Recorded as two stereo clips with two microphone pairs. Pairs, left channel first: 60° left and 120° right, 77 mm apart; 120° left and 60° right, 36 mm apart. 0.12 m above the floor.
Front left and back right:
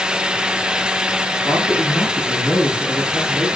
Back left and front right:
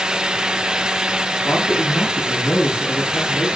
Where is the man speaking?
155° left, 5.5 m.